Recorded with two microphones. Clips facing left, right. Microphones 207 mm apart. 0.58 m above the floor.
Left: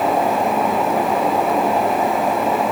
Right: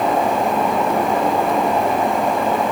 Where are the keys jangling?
I don't hear keys jangling.